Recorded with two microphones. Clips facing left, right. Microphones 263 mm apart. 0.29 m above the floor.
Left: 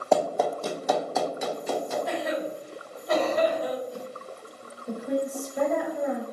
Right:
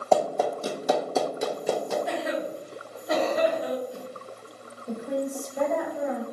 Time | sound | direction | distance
0.1 | running footsteps | 10° left (ahead or behind) | 0.7 m
2.1 | a cough | centre (ahead or behind) | 1.2 m
4.9 | a woman speaking | 10° left (ahead or behind) | 0.9 m